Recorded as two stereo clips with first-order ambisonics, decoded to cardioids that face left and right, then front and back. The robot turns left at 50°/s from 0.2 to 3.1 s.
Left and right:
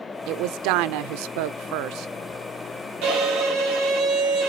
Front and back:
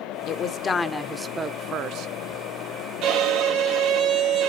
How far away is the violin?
About 4 m.